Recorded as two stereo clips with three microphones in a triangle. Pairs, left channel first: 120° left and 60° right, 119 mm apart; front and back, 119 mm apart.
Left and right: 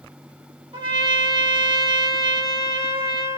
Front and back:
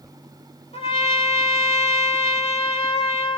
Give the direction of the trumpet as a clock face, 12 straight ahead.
1 o'clock.